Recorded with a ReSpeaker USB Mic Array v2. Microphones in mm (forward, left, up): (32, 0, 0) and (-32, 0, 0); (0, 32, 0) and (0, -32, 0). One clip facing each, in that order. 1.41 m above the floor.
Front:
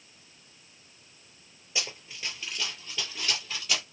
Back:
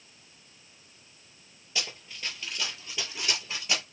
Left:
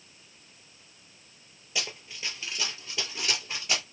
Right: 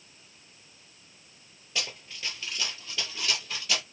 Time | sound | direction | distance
1.8 | running footsteps | 20° left | 1.4 m